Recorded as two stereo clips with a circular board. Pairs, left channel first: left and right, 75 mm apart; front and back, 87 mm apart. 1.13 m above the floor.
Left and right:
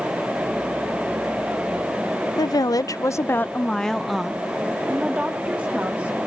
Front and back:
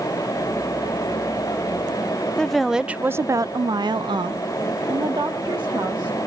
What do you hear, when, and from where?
2.4 s a woman speaking: 80° left, 0.7 m; by 6.3 s 155° right, 1.9 m